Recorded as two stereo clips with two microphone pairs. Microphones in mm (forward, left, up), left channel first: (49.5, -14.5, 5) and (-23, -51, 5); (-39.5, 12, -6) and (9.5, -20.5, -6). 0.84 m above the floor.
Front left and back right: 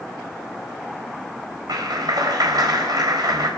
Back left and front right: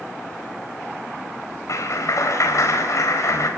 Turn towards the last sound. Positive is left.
turn(degrees=175)